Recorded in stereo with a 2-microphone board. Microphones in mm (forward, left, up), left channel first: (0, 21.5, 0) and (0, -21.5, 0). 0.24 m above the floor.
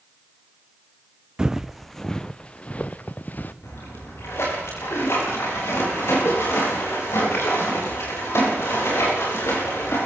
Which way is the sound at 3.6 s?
85° left.